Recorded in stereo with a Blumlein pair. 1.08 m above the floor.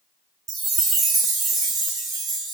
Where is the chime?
25° right, 0.6 m.